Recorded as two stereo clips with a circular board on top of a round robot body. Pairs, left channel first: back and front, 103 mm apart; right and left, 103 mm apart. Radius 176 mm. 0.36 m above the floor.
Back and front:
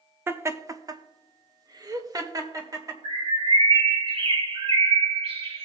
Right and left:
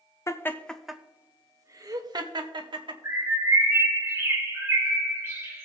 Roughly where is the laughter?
Ahead right.